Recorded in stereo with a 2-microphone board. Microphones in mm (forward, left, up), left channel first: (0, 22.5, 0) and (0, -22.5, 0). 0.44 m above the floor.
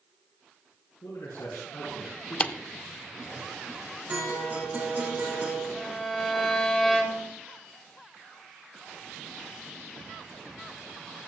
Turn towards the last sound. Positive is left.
turn(degrees=10)  # may be behind; listen again after turning